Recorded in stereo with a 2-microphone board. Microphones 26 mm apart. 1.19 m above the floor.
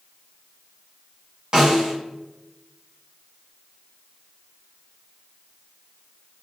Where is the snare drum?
40° right (ahead or behind), 1.1 m.